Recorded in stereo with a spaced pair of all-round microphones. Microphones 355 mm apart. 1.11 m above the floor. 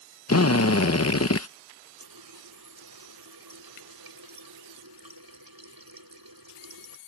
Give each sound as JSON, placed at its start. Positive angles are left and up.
{"t": 0.3, "sound": "a drill", "side_deg": 45}
{"t": 2.0, "sound": "a running tap", "side_deg": -75}